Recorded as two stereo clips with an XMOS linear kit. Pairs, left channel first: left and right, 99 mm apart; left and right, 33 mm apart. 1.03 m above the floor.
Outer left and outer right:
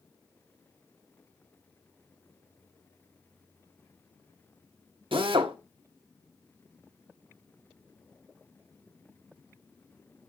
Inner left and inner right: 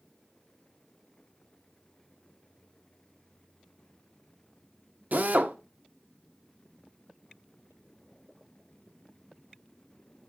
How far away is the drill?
About 1.0 m.